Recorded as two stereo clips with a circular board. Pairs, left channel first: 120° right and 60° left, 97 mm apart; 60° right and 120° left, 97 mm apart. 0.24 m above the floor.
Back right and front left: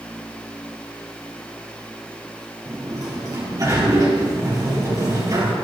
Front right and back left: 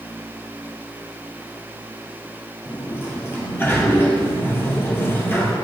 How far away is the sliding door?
About 2 m.